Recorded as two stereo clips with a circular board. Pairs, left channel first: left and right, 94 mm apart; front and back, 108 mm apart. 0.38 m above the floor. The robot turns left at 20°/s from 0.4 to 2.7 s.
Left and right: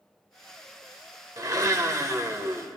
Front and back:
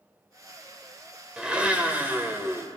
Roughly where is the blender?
Right.